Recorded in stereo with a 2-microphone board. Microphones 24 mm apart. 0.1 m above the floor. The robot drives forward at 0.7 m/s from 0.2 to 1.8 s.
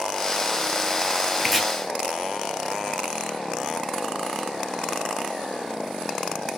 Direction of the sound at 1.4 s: Centre (ahead or behind).